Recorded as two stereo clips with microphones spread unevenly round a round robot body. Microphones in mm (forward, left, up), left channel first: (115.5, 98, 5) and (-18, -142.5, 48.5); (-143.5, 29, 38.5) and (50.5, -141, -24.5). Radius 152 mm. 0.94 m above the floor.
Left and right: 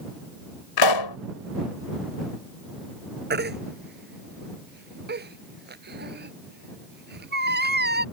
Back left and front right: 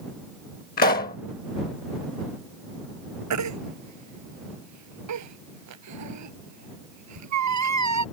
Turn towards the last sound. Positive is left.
turn(degrees=-65)